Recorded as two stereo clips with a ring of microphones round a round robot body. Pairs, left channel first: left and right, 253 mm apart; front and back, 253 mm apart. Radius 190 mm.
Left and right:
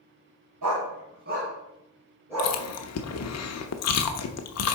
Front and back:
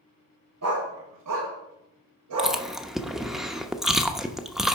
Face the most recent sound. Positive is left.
turn(degrees=90)